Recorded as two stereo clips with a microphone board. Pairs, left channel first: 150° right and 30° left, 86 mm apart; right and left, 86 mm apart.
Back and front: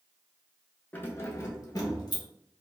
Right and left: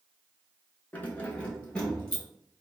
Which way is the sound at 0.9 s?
125° right.